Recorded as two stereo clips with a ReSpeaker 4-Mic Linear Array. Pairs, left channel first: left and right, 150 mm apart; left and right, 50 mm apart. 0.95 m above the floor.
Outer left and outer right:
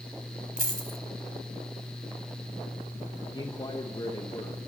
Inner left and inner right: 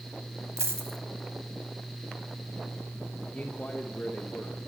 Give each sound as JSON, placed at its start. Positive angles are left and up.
{"t": 0.6, "sound": "a dropped coin", "side_deg": -65, "distance_m": 1.5}
{"t": 3.3, "sound": "a man speaking", "side_deg": 30, "distance_m": 1.0}